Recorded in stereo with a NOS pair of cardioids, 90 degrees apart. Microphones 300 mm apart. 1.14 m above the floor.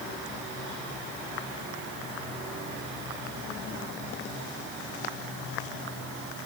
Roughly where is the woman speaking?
No woman speaking in this recording.